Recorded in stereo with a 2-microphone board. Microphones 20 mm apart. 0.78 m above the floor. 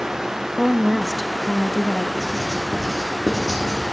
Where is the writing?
20° left (ahead or behind), 3.5 m.